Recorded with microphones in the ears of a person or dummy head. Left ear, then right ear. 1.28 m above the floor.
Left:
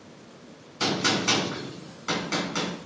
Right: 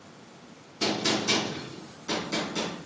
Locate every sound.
0.8 s a gunshot: 60° left (ahead or behind), 2.5 m